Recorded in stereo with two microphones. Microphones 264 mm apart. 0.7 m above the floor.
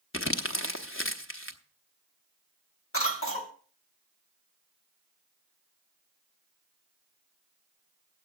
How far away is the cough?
About 1.9 m.